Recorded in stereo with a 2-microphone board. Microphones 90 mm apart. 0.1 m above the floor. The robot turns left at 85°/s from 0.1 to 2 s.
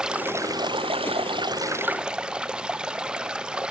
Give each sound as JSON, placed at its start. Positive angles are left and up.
{"t": 0.0, "sound": "running water", "azimuth_deg": -10}